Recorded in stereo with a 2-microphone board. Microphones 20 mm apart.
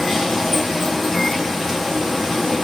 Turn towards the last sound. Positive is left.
turn(degrees=5)  # may be behind; listen again after turning